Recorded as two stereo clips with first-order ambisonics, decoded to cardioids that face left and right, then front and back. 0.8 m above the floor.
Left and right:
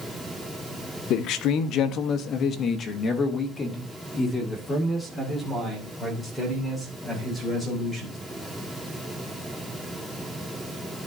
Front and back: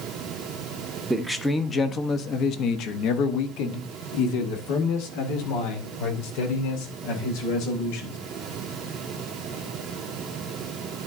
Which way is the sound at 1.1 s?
100° left.